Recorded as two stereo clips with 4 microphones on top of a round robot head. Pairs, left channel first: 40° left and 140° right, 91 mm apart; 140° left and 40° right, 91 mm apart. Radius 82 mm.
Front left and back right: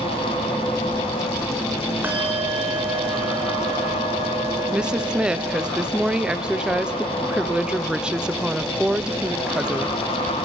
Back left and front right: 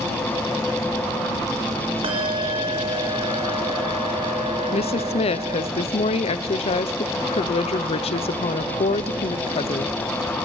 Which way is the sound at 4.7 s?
140° left.